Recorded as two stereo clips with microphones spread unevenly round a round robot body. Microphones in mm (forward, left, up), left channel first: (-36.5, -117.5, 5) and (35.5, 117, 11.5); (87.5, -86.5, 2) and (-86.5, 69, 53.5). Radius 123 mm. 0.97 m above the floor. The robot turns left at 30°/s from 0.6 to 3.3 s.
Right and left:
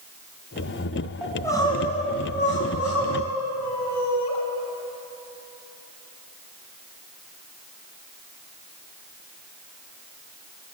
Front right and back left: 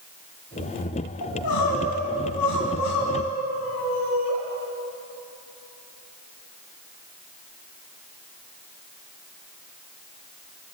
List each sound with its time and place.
1.2 s crying: 20° right, 5 m; by 4.4 s 80° right, 5 m